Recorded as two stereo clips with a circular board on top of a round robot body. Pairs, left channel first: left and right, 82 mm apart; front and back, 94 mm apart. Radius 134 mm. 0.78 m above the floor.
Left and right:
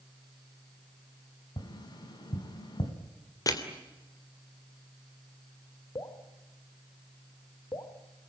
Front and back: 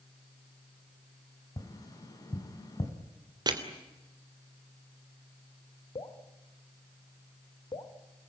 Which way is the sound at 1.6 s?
55° left.